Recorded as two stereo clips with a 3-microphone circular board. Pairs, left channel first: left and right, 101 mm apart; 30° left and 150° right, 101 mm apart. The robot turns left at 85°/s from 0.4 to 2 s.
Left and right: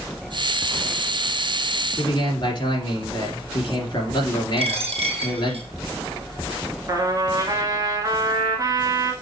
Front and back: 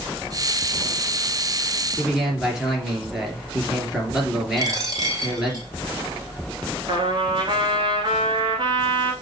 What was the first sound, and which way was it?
A man speaking, 130° left.